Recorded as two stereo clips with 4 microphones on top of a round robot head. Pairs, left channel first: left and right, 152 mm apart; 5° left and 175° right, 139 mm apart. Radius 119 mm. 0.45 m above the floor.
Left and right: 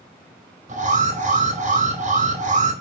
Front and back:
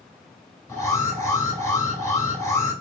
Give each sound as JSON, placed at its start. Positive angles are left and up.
{"t": 0.7, "sound": "an alarm", "azimuth_deg": -65, "distance_m": 3.5}